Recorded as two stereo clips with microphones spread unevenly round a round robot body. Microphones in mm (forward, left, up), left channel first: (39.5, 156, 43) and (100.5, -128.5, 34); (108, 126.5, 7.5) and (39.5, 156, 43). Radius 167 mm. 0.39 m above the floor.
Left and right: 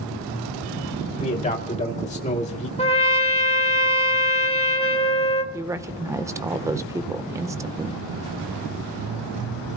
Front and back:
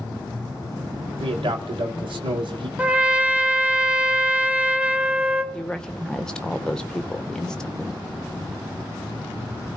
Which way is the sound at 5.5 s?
5° right.